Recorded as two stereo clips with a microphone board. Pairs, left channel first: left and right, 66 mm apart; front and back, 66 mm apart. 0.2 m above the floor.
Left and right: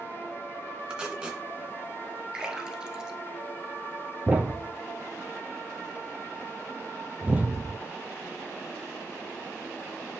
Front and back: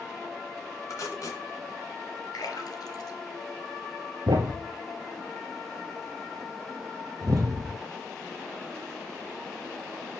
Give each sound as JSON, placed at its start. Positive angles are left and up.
{"t": 0.9, "sound": "tape being pulled", "azimuth_deg": -20, "distance_m": 2.0}
{"t": 2.3, "sound": "a splash", "azimuth_deg": -15, "distance_m": 1.2}
{"t": 4.3, "sound": "a thud", "azimuth_deg": -160, "distance_m": 1.0}